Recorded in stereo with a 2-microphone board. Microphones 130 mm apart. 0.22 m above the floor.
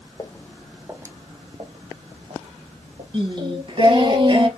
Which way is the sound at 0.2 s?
30° left (ahead or behind).